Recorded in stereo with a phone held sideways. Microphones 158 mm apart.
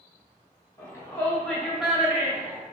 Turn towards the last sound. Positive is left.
turn(degrees=-15)  # may be behind; listen again after turning